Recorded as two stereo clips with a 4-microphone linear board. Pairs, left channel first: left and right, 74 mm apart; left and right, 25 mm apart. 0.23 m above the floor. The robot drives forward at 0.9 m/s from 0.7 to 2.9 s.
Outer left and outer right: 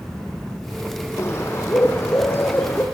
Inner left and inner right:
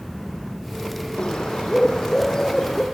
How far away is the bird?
About 4 m.